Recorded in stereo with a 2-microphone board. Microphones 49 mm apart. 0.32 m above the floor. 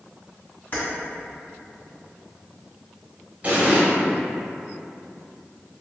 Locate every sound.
0.7 s keys jangling: 45° left (ahead or behind), 1.4 m
3.4 s an explosion: 35° right (ahead or behind), 1.0 m